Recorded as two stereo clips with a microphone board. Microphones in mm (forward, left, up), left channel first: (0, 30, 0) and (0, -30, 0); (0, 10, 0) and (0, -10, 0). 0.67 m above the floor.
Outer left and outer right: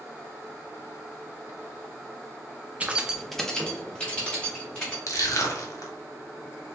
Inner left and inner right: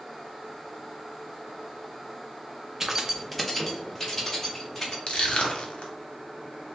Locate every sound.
2.8 s keys jangling: 20° right (ahead or behind), 0.7 m; by 5.0 s 20° left (ahead or behind), 2.5 m
5.1 s crushing: 60° left (ahead or behind), 1.0 m